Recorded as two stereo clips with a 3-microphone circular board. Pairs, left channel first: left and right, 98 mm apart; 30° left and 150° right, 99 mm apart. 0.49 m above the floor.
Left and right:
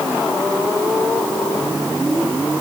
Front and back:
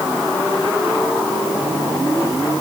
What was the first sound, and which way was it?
Only background noise.